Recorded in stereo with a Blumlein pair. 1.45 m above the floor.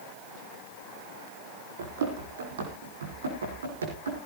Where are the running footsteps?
60° right, 4.5 m; by 4.2 s 70° right, 5.5 m.